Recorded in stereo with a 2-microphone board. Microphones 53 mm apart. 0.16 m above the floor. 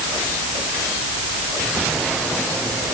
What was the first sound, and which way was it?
Only background noise.